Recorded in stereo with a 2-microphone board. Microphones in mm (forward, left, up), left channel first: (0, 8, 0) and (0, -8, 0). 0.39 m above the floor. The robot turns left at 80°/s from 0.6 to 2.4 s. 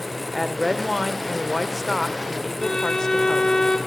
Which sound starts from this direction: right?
A woman speaking, at 0.3 s.